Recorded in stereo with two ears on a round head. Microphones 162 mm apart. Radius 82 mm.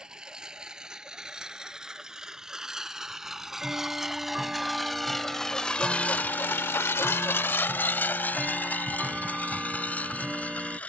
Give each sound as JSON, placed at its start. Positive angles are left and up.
{"t": 0.0, "sound": "a lawn mower", "side_deg": -5}
{"t": 3.2, "sound": "ticking", "side_deg": -5}